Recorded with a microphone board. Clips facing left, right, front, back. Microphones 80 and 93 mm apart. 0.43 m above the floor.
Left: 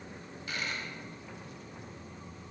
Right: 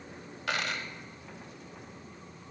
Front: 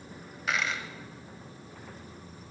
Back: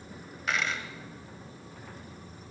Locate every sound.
0.5 s a dropped coin: 90° right, 1.0 m